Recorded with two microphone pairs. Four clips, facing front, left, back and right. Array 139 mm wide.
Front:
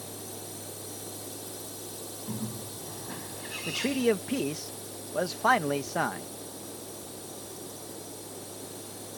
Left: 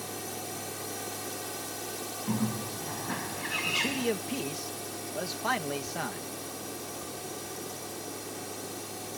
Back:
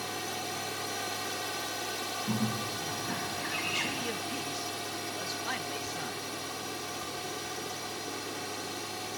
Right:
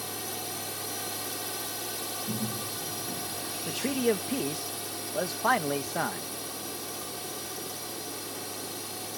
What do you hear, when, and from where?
0.0 s a drone: 155° right
2.3 s a bird: 100° left
3.7 s a man speaking: 20° right